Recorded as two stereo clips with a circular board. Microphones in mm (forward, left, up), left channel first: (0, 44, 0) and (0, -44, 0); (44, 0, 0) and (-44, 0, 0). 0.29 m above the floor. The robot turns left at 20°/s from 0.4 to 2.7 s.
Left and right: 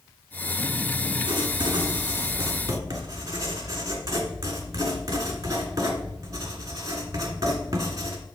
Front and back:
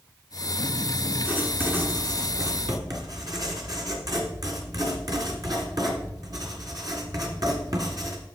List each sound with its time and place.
1.2 s writing: 110° right, 1.9 m; by 8.2 s 140° right, 1.9 m